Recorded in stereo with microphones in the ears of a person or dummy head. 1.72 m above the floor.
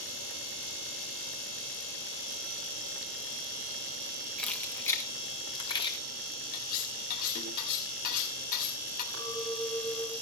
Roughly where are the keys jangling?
Centre.